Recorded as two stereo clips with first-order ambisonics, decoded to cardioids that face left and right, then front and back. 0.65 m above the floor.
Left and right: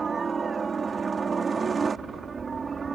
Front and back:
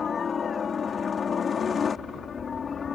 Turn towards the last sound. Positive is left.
turn(degrees=-35)